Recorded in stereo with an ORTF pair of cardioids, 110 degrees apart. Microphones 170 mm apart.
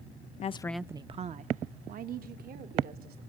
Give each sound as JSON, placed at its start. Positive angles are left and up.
{"t": 0.4, "sound": "a woman speaking", "azimuth_deg": 45, "distance_m": 0.7}